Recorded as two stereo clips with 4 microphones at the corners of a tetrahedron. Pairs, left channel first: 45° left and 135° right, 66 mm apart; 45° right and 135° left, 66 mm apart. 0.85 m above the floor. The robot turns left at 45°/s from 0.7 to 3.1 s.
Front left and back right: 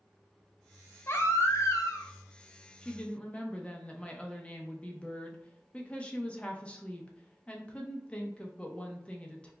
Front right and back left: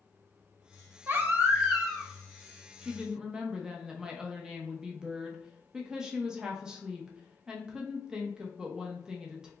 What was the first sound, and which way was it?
A baby crying, 85° left.